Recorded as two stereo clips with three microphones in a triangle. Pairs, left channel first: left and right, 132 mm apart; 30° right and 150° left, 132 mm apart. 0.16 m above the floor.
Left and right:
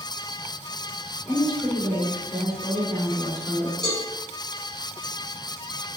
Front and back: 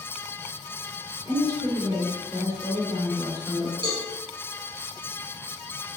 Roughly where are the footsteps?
No footsteps in this recording.